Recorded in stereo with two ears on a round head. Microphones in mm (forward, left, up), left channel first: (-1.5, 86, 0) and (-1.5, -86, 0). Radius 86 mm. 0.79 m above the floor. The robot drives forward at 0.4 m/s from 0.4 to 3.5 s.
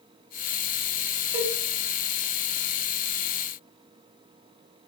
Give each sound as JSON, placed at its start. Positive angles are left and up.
{"t": 1.3, "sound": "a cowbell", "side_deg": -10, "distance_m": 2.5}